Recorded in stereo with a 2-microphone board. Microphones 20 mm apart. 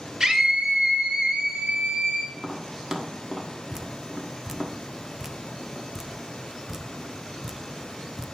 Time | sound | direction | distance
0.2 | a scream | 35° right (ahead or behind) | 2 m
2.3 | tapping | 40° right (ahead or behind) | 1.3 m
3.7 | dripping | 25° right (ahead or behind) | 0.7 m